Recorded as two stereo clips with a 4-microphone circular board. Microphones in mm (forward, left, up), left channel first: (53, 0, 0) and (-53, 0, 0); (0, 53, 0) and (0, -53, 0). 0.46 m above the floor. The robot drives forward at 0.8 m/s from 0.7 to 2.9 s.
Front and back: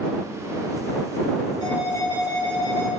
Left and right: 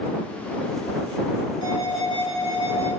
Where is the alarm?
50° left, 5.5 m; by 2.9 s 60° left, 5 m.